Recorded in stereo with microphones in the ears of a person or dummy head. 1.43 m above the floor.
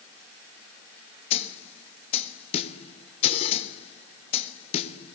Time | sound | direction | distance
1.3 | a snare drum | 35° left (ahead or behind) | 0.7 m